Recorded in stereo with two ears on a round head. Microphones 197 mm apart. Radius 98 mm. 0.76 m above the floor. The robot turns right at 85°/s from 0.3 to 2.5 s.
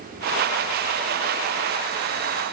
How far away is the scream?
I don't hear a scream.